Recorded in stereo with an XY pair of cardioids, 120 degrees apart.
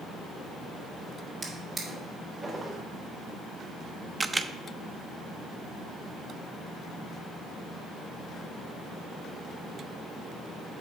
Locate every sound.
1.4 s a drawer: 35° right, 3 m
4.2 s a camera shutter: 15° right, 0.5 m